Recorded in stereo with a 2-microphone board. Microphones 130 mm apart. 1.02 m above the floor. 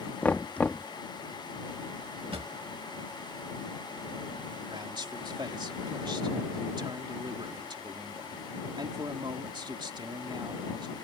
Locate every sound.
0.2 s knocking: 10° left (ahead or behind)
2.3 s a drawer: 45° right (ahead or behind)
4.7 s a man speaking: 35° right (ahead or behind)